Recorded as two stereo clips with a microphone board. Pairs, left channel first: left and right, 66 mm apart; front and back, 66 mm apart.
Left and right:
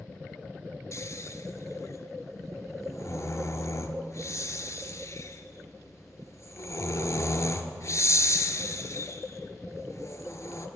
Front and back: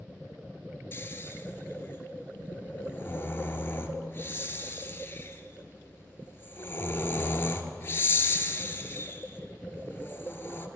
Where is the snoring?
55° left, 0.9 m.